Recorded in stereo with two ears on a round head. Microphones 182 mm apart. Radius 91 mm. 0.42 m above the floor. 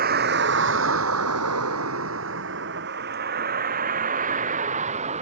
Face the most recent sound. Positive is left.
turn(degrees=-35)  # may be behind; listen again after turning